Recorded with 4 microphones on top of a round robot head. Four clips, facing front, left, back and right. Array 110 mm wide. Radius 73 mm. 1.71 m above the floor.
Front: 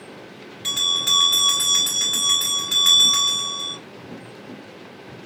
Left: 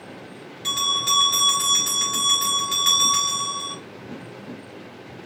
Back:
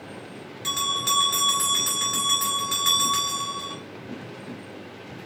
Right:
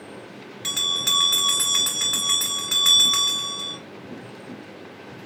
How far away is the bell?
About 1.4 m.